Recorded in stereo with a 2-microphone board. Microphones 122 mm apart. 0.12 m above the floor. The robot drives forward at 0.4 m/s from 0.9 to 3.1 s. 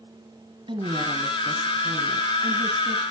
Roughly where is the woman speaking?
Right.